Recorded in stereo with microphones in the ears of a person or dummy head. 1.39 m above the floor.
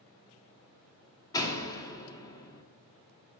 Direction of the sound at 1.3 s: 20° left (ahead or behind).